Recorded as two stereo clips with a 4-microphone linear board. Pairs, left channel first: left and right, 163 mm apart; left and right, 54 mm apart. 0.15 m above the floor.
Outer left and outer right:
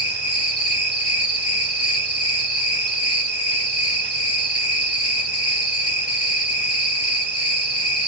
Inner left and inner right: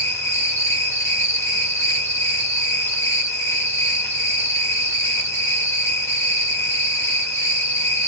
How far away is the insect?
About 1.7 m.